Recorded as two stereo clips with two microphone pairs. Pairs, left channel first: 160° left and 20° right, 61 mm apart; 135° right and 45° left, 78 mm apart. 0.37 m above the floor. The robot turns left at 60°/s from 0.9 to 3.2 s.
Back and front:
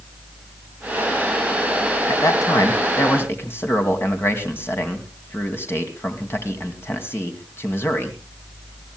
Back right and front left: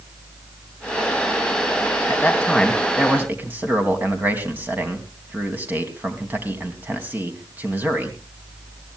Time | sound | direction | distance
2.1 | a man speaking | 175° left | 2.5 m